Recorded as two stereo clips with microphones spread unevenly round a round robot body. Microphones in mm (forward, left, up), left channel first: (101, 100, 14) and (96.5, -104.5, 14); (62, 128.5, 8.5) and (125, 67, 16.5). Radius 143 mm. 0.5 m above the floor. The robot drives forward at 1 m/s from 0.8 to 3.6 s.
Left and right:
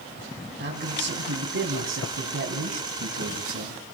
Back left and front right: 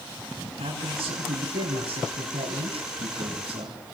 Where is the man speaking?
60° right, 5 m; by 3.8 s 95° right, 4.5 m.